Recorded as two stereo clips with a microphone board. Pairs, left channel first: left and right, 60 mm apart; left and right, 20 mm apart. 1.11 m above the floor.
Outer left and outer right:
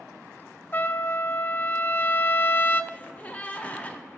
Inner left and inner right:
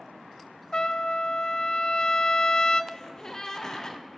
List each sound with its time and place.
0.7 s a trumpet: 35° left (ahead or behind), 0.6 m
2.9 s a gasp: 25° left (ahead or behind), 1.3 m